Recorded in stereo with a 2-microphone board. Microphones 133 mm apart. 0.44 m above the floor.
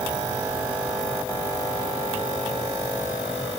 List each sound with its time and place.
Only background noise.